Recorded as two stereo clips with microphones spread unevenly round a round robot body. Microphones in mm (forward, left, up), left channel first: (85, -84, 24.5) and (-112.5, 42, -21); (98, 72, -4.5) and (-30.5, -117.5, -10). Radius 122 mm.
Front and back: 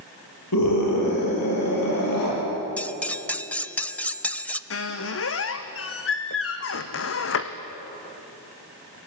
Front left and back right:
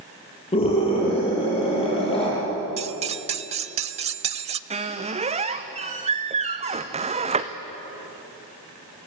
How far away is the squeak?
About 1.9 m.